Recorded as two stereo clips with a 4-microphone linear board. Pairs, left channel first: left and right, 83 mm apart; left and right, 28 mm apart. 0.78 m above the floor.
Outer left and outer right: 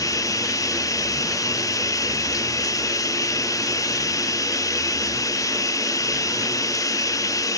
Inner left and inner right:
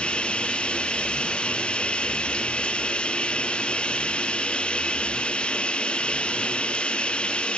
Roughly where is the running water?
Left.